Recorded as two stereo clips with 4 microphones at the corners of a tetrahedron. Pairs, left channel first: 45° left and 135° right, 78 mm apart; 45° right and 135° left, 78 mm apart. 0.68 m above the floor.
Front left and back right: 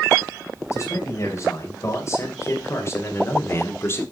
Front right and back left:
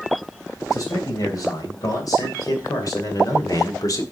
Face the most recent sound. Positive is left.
turn(degrees=-10)